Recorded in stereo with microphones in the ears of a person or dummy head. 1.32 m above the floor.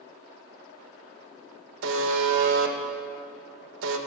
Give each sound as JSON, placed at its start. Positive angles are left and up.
{"t": 1.8, "sound": "a buzzer", "side_deg": -70, "distance_m": 1.8}